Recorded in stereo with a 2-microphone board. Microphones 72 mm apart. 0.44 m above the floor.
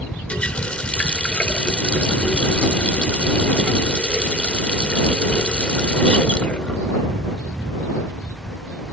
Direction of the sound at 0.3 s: 15° left (ahead or behind).